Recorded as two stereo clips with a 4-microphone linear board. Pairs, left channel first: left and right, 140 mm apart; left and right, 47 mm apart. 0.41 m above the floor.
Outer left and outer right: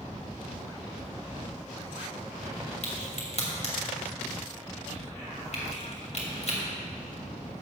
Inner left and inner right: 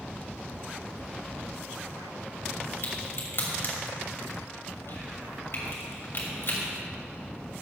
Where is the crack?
55° left (ahead or behind), 2.5 m.